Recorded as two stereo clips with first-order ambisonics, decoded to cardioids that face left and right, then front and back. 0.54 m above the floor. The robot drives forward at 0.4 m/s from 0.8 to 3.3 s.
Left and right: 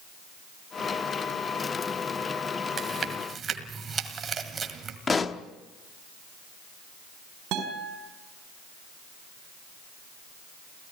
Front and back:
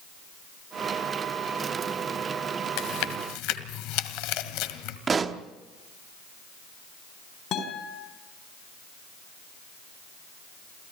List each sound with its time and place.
2.8 s chewing: 20° right, 1.9 m
5.1 s a pop: 140° left, 0.9 m
7.5 s a guitar: 50° right, 4.5 m